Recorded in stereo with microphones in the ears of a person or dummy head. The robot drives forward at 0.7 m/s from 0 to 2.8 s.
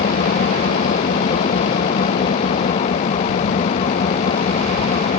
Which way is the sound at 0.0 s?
45° left (ahead or behind).